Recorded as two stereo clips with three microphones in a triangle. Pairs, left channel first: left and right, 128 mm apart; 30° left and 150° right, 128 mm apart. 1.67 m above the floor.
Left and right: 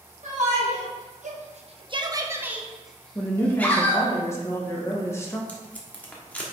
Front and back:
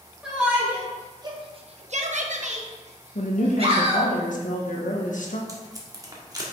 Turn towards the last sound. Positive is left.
turn(degrees=165)